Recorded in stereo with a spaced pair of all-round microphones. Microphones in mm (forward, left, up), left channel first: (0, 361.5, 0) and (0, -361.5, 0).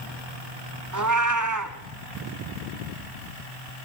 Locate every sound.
0.9 s a cat meowing: 25° right (ahead or behind), 1.6 m